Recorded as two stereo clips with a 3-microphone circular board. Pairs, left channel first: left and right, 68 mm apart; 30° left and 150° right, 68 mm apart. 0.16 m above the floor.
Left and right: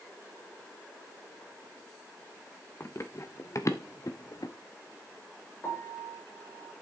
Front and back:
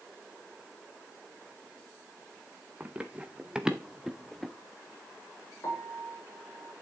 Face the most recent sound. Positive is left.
turn(degrees=45)